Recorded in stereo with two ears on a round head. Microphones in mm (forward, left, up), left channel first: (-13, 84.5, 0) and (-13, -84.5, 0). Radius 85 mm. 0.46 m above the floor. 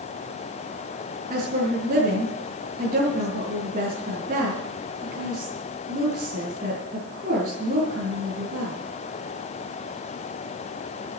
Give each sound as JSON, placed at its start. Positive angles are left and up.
{"t": 1.3, "sound": "a woman speaking", "side_deg": -45, "distance_m": 5.0}